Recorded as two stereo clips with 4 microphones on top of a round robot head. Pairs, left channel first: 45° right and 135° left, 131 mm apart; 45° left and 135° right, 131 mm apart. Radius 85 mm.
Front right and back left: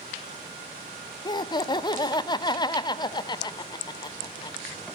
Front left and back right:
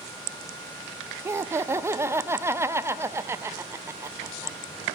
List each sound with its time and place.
1.2 s laughter: 75° right, 0.5 m